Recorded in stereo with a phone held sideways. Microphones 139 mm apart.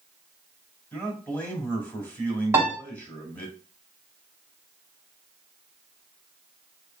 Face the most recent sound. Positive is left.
turn(degrees=-25)  # may be behind; listen again after turning